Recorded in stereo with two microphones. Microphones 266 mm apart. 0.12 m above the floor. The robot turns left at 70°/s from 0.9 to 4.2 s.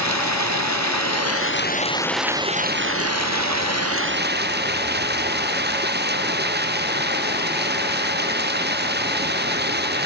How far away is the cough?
I don't hear a cough.